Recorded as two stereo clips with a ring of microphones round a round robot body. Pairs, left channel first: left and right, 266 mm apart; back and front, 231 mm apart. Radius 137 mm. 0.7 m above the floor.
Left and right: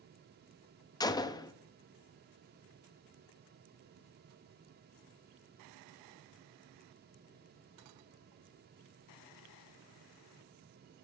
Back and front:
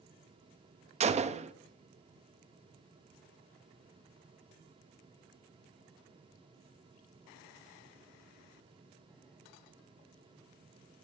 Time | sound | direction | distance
1.0 | a gunshot | 30° left | 0.5 m